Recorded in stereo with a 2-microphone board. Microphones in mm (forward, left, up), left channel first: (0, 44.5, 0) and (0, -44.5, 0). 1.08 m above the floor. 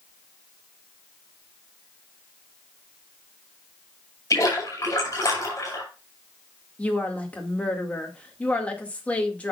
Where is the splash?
35° left (ahead or behind), 5.5 m.